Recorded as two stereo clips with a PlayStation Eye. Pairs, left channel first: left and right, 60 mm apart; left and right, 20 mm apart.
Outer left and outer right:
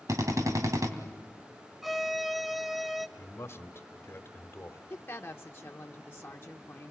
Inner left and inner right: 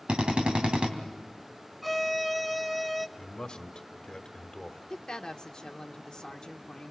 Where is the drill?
65° right (ahead or behind), 2.5 m.